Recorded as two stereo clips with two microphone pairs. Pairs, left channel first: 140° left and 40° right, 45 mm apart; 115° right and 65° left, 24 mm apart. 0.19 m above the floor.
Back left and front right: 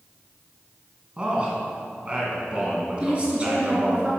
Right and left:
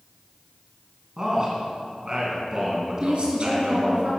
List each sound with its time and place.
1.2 s a man speaking: 15° left, 2 m
3.0 s a woman speaking: 25° left, 3.5 m